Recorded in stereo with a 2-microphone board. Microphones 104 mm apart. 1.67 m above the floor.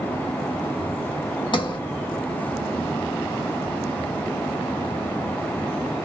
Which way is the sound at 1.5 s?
50° left (ahead or behind).